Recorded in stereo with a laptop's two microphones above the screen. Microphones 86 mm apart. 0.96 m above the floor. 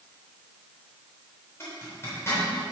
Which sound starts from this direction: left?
A zipper, at 1.6 s.